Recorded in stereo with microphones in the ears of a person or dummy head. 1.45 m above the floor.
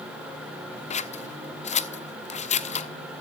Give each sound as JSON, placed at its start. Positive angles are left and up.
{"t": 0.9, "sound": "scissors", "side_deg": 35, "distance_m": 0.6}